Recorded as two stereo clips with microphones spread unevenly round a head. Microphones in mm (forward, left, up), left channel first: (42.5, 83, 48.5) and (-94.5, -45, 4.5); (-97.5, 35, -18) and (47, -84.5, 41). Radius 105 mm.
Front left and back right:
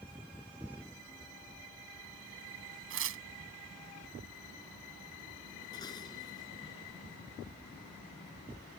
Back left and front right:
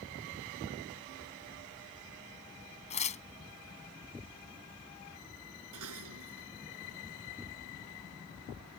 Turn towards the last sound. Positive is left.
turn(degrees=-30)